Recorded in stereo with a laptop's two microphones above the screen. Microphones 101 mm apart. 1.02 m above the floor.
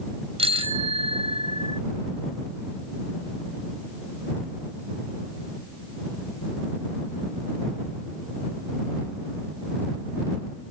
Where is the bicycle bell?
75° right (ahead or behind).